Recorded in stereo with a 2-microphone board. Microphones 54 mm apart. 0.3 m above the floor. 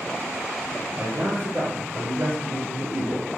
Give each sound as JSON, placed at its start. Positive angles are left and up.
{"t": 0.9, "sound": "a man speaking", "side_deg": -30, "distance_m": 6.0}